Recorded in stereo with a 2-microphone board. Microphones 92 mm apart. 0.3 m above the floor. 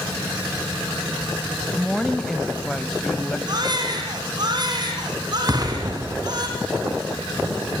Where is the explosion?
35° right (ahead or behind), 3 m.